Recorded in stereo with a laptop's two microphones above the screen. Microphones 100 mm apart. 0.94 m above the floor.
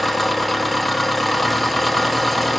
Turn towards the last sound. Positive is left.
turn(degrees=0)  # may be behind; listen again after turning